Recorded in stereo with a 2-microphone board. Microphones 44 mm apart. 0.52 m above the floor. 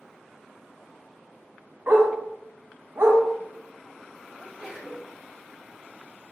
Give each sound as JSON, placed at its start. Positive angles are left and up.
{"t": 1.9, "sound": "a dog barking", "side_deg": -65, "distance_m": 1.0}
{"t": 4.4, "sound": "a sneeze", "side_deg": -5, "distance_m": 1.8}